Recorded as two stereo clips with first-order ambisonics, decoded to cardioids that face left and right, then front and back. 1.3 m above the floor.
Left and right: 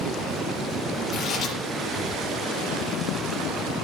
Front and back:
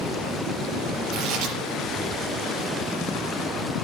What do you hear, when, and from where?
1.1 s tearing paper: 155° left, 5 m